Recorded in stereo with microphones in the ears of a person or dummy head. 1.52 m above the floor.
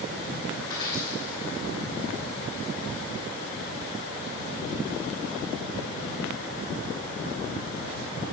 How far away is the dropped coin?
About 4.5 m.